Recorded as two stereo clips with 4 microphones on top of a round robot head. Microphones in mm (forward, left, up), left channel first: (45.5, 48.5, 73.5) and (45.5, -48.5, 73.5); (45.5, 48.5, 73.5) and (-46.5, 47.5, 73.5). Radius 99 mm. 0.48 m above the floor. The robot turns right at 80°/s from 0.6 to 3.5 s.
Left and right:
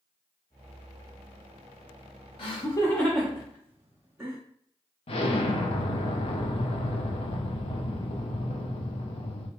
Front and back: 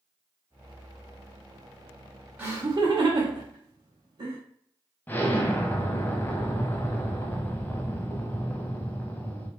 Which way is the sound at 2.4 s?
105° left.